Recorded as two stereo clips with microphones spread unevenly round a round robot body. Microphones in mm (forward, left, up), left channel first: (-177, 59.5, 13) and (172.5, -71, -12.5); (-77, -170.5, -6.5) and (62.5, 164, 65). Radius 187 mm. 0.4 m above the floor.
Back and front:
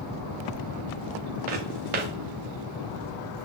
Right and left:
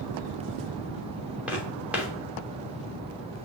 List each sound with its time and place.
1.5 s footsteps: 20° right, 2.5 m